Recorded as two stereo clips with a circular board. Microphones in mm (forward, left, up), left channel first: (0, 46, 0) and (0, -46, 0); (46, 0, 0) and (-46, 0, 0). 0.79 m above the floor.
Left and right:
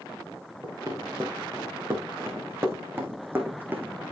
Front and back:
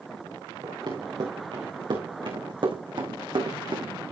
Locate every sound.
0.6 s running footsteps: 145° right, 5 m; by 3.9 s 160° right, 3 m